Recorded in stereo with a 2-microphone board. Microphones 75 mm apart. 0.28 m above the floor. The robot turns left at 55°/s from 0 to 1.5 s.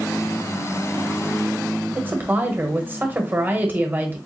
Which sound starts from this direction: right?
A woman speaking, at 1.9 s.